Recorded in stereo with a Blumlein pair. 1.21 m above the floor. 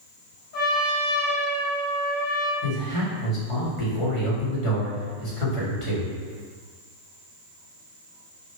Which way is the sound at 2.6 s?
40° left.